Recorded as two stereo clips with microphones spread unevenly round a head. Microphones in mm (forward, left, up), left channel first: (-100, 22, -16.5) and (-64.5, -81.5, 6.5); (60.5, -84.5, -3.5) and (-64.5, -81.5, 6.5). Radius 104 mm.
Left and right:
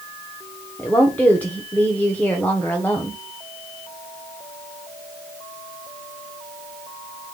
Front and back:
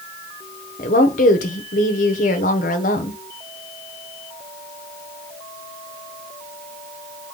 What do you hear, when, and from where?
0.8 s a woman speaking: 30° left, 0.8 m